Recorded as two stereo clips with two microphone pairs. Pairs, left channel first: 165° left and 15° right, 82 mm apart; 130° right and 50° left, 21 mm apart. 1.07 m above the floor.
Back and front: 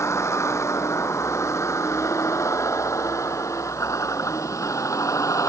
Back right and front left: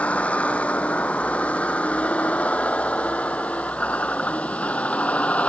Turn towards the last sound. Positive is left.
turn(degrees=-145)